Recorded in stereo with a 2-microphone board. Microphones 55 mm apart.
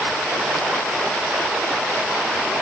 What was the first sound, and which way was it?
Only background noise.